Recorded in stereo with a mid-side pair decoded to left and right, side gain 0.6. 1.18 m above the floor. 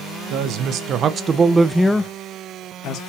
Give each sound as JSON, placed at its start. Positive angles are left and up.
{"t": 0.3, "sound": "a woman speaking", "azimuth_deg": -60, "distance_m": 1.1}